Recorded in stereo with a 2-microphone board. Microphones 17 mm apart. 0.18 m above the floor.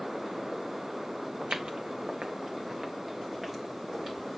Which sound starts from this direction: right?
Footsteps, at 1.4 s.